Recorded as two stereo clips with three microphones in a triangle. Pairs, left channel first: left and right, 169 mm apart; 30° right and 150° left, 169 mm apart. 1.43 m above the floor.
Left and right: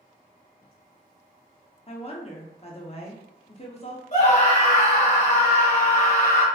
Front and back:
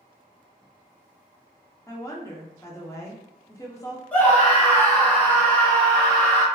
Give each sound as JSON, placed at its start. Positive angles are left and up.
{"t": 1.9, "sound": "a woman speaking", "azimuth_deg": 40, "distance_m": 0.8}
{"t": 4.1, "sound": "a scream", "azimuth_deg": 50, "distance_m": 1.4}